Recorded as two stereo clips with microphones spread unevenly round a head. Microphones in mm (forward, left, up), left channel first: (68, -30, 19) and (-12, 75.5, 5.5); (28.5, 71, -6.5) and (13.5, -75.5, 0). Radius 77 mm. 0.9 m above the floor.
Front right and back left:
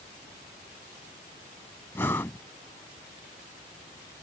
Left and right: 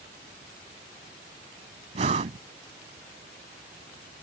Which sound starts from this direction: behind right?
Breathing, at 1.9 s.